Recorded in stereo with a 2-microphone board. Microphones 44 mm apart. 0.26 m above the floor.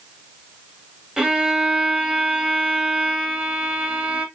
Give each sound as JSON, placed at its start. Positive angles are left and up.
{"t": 1.2, "sound": "a violin", "side_deg": -10, "distance_m": 1.0}